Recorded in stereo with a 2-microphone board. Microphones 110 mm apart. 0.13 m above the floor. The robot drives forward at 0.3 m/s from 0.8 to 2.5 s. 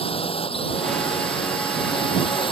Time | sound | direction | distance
0.0 | a drone | 65° left (ahead or behind) | ?